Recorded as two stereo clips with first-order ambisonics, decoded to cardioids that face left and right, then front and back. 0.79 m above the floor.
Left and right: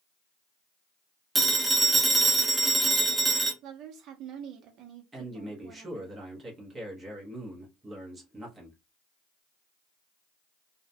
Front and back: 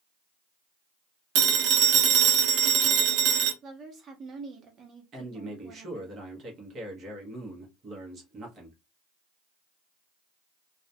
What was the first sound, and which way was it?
A phone ringing, 175° right.